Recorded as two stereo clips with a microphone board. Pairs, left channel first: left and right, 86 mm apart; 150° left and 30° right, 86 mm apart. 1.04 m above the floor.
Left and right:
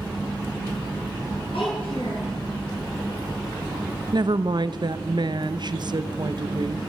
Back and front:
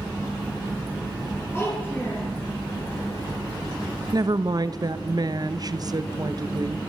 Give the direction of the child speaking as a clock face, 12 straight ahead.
9 o'clock.